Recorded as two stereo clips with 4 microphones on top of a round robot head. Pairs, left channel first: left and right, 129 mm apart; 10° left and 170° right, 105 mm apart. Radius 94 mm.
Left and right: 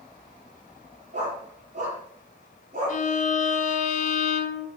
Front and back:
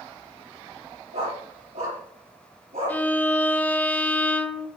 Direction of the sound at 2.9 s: 80° left.